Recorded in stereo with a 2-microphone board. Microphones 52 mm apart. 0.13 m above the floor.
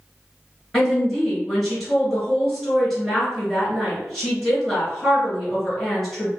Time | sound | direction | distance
0.7 | a woman speaking | centre (ahead or behind) | 2.0 m